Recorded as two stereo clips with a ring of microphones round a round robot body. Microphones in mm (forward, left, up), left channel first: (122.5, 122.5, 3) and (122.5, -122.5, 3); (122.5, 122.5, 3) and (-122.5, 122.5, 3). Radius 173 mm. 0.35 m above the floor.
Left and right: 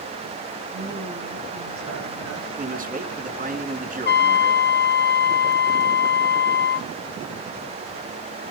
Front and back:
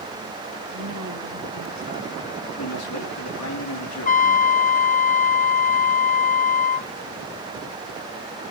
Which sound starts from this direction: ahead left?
A trumpet, at 4.0 s.